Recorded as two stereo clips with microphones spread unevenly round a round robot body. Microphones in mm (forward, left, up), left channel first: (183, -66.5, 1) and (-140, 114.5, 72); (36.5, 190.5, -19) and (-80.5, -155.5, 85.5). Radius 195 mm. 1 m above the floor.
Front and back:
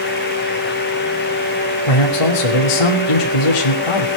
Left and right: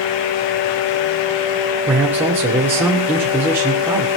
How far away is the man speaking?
About 2.5 m.